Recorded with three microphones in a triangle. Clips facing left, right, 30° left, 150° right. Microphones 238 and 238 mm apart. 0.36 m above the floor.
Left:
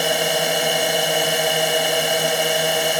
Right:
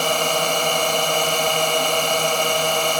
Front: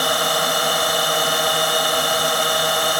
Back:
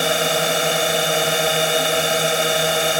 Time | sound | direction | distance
0.0 | a drone | 160° left | ?